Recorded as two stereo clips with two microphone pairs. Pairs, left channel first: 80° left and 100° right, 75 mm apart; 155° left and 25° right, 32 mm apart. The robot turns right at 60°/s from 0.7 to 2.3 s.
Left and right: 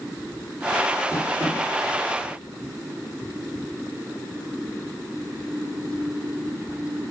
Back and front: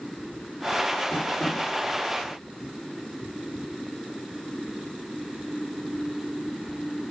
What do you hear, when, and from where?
1.1 s tapping: 170° right, 5 m; by 1.6 s 145° right, 5 m